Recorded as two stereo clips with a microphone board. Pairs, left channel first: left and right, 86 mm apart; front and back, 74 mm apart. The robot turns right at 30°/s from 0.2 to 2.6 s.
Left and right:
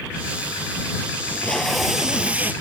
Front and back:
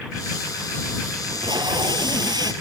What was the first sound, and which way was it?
Tape being pulled, 160° left.